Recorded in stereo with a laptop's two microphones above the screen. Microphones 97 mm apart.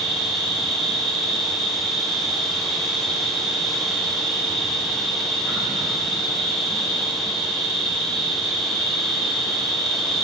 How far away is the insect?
About 3.5 m.